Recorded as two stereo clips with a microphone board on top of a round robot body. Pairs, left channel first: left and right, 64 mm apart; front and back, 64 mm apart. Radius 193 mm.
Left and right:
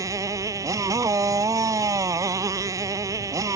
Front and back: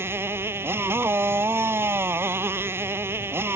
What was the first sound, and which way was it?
A motorcycle, 125° right.